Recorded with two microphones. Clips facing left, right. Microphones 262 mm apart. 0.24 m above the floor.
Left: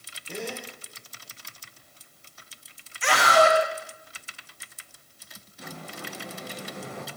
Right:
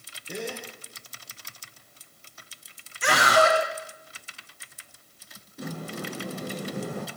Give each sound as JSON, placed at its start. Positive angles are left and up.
{"t": 0.3, "sound": "a gasp", "side_deg": -15, "distance_m": 4.0}
{"t": 3.0, "sound": "a scream", "side_deg": -45, "distance_m": 2.0}
{"t": 5.6, "sound": "a sliding door", "side_deg": -50, "distance_m": 1.7}